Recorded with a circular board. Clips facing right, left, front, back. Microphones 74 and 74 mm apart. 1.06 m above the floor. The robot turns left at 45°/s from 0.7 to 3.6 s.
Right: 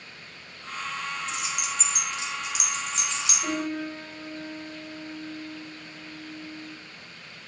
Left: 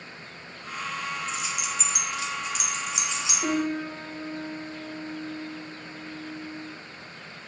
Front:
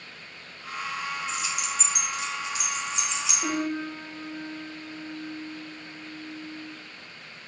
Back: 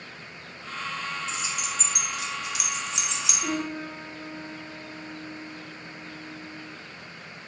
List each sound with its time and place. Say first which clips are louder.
1.3 s keys jangling: even, front 1 dB; 115° right, 1.4 m; by 3.3 s 155° left, 1.4 m
3.4 s a piano: left 4 dB, front 2 dB; 70° left, 1.4 m; by 6.8 s 65° left, 1.4 m